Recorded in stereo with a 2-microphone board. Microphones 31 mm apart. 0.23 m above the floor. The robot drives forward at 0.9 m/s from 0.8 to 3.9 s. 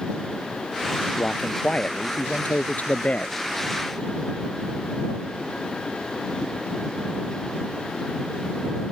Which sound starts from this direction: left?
A man speaking, at 1.2 s.